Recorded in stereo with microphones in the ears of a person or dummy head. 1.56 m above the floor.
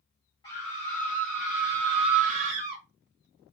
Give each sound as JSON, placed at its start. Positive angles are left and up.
{"t": 0.4, "sound": "a scream", "side_deg": 20, "distance_m": 1.4}